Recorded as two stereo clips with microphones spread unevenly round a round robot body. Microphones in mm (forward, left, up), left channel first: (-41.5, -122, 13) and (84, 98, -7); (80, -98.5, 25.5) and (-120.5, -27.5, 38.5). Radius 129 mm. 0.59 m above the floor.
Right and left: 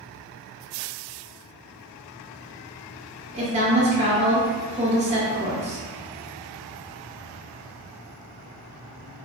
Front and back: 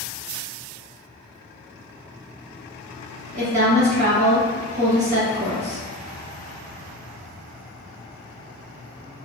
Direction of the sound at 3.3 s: 110° left.